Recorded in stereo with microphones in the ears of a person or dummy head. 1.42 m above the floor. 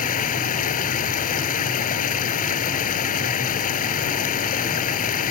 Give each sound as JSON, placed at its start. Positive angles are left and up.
{"t": 0.0, "sound": "running water", "side_deg": 40}